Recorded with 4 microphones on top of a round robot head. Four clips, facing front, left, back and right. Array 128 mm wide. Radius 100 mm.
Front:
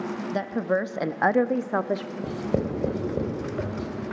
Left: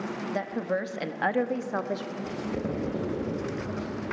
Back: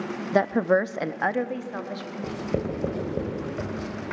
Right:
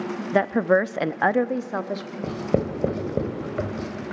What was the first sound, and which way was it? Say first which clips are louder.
A woman speaking: right 11 dB, back 6 dB; 125° right.